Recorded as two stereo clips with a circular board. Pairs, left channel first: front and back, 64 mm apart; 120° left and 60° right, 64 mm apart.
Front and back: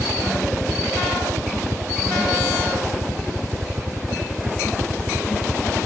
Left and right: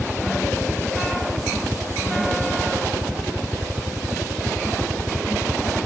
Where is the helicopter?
155° right.